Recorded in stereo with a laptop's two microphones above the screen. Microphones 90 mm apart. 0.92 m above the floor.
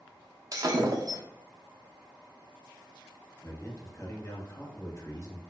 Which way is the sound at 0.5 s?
45° right (ahead or behind).